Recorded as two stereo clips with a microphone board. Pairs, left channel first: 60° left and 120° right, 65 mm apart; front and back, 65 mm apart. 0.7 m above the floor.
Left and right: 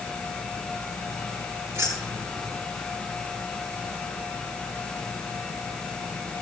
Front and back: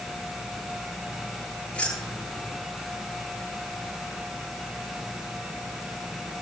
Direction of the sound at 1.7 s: 75° right.